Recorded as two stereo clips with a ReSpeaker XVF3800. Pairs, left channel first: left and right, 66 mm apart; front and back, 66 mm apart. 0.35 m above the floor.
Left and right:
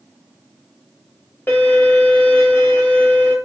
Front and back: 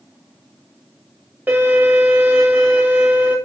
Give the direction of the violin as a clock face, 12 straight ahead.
8 o'clock.